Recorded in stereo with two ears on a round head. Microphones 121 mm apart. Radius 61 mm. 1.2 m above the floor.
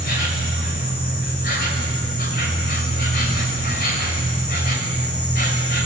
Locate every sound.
0.0 s an insect: 70° left (ahead or behind), 4.5 m